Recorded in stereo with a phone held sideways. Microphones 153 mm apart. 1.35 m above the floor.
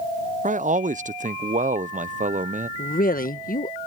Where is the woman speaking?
65° left (ahead or behind).